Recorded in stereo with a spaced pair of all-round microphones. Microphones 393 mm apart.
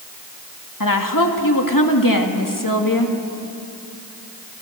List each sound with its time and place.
0.8 s a woman speaking: 55° left (ahead or behind), 2.5 m